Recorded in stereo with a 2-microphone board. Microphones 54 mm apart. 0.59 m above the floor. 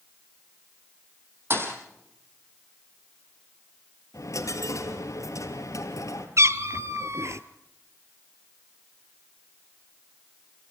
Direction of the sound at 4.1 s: 75° left (ahead or behind).